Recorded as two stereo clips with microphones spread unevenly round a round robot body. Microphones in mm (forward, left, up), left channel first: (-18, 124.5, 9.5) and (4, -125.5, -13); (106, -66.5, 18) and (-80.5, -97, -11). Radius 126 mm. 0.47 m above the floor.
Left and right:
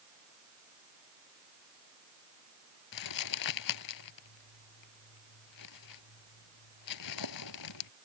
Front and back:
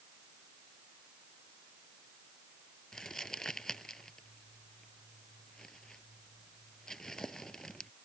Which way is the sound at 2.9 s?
95° left.